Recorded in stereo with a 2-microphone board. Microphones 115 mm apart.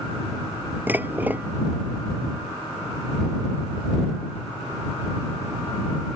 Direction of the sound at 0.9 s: 15° right (ahead or behind).